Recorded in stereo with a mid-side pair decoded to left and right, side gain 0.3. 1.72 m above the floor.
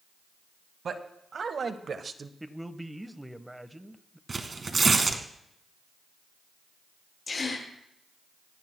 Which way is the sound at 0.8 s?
65° right.